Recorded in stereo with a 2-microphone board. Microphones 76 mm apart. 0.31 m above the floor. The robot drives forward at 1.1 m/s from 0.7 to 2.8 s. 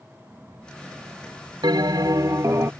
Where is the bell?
75° right (ahead or behind); by 2.7 s 40° right (ahead or behind).